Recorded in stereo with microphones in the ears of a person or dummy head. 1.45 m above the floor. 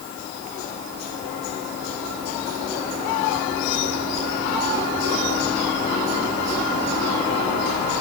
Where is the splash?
No splash in this recording.